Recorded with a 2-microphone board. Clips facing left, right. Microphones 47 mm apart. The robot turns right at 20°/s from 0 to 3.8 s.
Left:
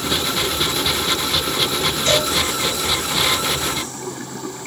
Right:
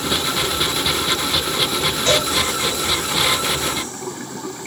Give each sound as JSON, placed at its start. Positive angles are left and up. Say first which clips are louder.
{"t": 2.1, "sound": "a cowbell", "louder": "even", "side_deg": -25, "distance_m": 1.8}